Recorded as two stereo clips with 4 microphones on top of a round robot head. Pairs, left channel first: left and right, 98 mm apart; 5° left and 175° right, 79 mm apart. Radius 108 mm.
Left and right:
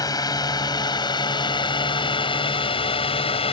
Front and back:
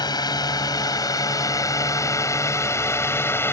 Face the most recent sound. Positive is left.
turn(degrees=65)